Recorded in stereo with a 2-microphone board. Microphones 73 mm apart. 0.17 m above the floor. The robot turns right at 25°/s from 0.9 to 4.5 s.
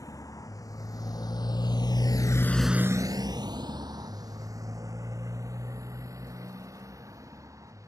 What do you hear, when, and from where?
0.0 s a motorcycle: 55° left (ahead or behind); by 7.9 s 45° right (ahead or behind)